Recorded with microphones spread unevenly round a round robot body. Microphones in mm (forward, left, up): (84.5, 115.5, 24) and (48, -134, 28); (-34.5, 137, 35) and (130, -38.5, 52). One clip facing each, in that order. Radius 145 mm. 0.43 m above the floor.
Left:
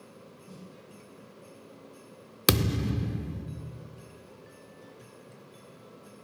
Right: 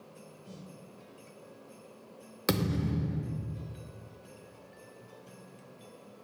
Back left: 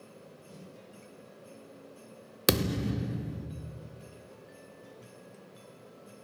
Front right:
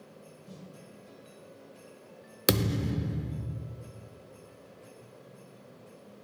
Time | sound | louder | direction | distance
0.5 | a snare drum | even, front right 3 dB | 135° right | 2.5 m
2.5 | a thud | left 2 dB, even | 50° left | 0.6 m